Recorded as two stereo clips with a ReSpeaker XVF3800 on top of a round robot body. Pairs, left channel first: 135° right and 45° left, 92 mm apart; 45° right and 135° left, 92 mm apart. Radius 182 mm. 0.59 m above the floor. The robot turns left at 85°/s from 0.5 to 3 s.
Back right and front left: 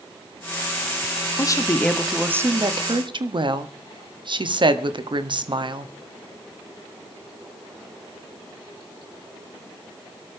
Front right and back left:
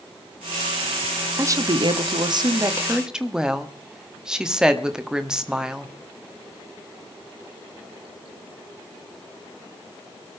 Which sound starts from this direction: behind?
A woman speaking, at 1.4 s.